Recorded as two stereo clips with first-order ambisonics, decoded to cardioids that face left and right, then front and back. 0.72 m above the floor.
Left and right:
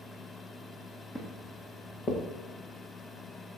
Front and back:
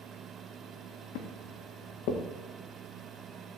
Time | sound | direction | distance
1.1 | footsteps | 15° left | 4 m